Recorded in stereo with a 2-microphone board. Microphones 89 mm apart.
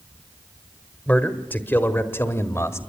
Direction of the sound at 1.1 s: 15° left (ahead or behind).